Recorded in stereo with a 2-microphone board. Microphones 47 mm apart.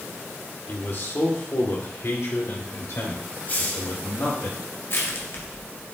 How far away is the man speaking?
About 1.9 m.